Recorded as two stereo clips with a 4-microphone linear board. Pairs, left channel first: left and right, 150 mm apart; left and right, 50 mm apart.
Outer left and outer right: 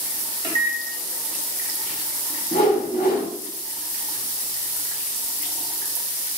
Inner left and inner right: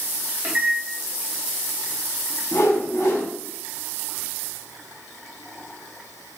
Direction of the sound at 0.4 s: 40° right (ahead or behind).